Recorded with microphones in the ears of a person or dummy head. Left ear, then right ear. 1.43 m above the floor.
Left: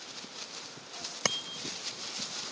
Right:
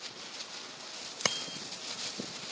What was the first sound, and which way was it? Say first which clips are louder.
A bicycle bell: even; 5° right (ahead or behind).